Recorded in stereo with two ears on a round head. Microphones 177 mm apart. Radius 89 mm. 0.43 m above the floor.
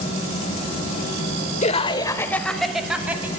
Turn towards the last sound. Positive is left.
turn(degrees=-10)  # may be behind; listen again after turning